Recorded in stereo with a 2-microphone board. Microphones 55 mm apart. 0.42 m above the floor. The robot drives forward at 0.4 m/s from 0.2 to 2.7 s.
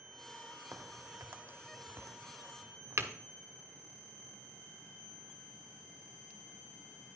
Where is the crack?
50° right (ahead or behind), 1.2 m.